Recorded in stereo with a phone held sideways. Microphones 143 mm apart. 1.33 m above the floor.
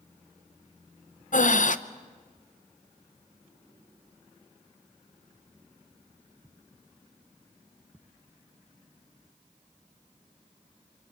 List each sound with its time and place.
1.3 s breathing: 65° left (ahead or behind), 0.6 m